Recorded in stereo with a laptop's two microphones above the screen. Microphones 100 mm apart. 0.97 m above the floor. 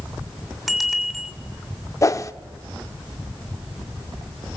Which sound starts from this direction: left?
A whoosh, at 2.0 s.